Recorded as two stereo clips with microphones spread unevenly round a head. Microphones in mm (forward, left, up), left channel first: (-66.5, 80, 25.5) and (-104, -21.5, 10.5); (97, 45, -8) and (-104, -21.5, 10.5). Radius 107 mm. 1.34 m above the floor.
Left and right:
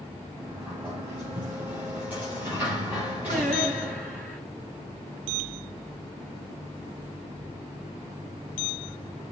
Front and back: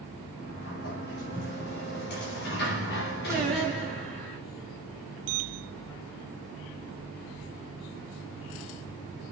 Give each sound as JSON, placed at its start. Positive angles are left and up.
{"t": 0.4, "sound": "a sliding door", "azimuth_deg": -25, "distance_m": 4.5}
{"t": 3.3, "sound": "singing", "azimuth_deg": -70, "distance_m": 4.5}